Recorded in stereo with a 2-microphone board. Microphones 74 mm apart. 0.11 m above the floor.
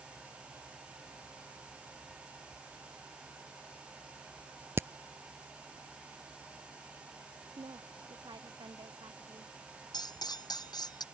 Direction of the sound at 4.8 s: 35° right (ahead or behind).